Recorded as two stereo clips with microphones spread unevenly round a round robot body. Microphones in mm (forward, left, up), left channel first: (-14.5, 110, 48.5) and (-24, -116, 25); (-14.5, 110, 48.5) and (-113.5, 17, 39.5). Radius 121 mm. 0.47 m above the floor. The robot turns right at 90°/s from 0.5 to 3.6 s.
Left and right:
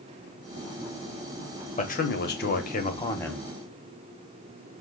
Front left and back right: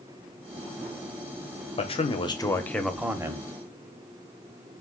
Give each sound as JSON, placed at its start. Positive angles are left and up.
{"t": 1.8, "sound": "a man speaking", "azimuth_deg": 40, "distance_m": 0.8}